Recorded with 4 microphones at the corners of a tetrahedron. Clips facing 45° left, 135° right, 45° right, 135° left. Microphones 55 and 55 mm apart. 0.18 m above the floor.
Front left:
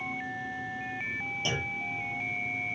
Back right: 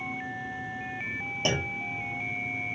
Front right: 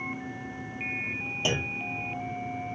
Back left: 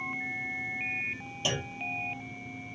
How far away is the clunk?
About 0.9 m.